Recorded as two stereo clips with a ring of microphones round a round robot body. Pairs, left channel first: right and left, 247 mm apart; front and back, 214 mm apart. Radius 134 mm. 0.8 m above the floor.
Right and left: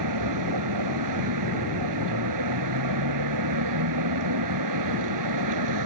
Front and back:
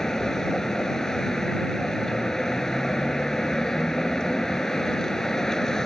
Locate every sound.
0.0 s a vehicle: 90° left